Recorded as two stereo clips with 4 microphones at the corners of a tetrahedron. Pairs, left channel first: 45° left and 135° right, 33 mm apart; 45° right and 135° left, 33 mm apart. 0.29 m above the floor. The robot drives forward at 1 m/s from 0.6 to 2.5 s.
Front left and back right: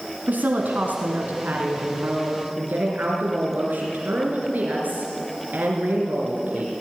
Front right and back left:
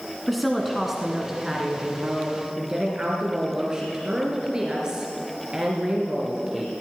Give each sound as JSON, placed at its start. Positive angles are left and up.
{"t": 0.3, "sound": "a woman speaking", "azimuth_deg": -135, "distance_m": 2.5}